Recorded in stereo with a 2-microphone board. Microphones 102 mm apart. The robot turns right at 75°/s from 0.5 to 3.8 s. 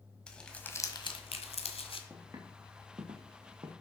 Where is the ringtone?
I don't hear a ringtone.